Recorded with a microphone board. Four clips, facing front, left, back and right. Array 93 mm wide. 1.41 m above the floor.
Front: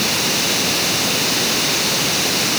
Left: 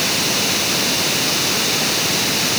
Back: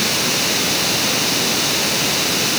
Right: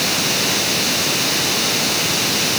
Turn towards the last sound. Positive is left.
No sound to turn to.